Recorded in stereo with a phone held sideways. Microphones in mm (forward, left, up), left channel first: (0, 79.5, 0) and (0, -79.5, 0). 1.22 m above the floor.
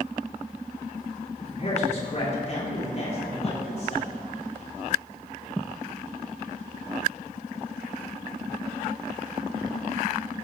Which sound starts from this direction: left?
A man speaking, at 1.4 s.